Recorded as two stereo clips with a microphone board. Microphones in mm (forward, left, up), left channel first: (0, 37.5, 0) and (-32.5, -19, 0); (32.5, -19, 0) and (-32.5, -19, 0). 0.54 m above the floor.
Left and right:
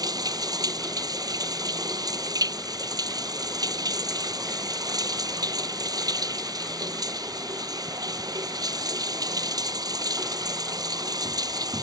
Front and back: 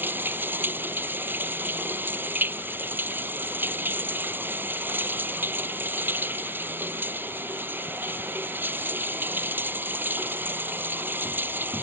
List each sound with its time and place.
0.0 s running water: 120° right